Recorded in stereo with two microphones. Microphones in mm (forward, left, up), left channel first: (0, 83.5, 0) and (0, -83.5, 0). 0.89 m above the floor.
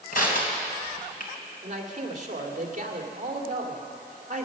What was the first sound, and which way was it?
Crushing, 60° left (ahead or behind).